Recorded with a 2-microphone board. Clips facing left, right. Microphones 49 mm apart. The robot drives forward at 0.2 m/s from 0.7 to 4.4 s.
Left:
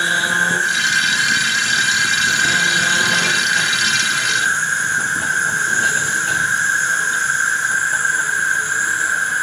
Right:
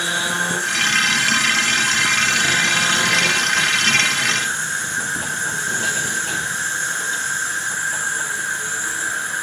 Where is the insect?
40° left (ahead or behind), 1.7 m; by 9.4 s 55° left (ahead or behind), 1.4 m.